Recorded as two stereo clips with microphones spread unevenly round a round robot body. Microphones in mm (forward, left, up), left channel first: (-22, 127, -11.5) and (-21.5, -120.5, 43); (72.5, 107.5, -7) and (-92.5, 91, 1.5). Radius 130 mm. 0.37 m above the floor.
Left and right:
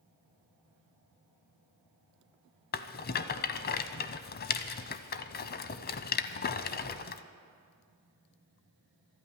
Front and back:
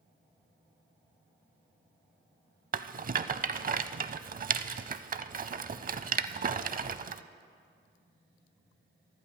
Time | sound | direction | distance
2.7 | a rattle | 145° left | 0.6 m